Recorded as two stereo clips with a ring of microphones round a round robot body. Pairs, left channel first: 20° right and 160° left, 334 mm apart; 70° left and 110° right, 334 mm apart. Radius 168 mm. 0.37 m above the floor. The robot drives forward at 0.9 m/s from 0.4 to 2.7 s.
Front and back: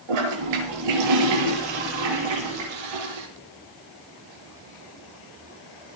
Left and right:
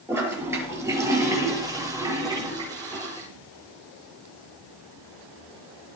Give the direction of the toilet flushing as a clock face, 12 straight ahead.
7 o'clock.